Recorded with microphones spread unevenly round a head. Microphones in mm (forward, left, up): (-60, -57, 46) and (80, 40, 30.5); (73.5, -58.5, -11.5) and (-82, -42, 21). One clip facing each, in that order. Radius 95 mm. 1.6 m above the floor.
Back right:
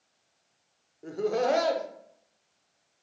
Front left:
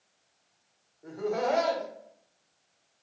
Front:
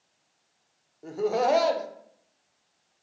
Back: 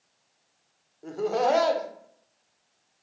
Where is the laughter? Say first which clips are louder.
Back right 3 dB, even; 95° right, 0.5 m.